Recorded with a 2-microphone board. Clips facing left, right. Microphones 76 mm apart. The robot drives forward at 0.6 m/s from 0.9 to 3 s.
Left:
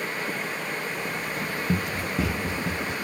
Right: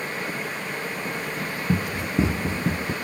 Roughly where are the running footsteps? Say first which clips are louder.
Right 3 dB; centre.